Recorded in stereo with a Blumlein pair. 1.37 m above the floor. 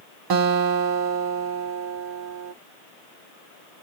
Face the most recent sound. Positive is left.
turn(degrees=-45)